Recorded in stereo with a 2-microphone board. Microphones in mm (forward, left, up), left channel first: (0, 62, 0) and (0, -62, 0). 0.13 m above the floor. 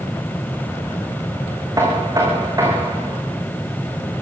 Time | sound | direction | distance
1.8 | knocking | 30° right (ahead or behind) | 8 m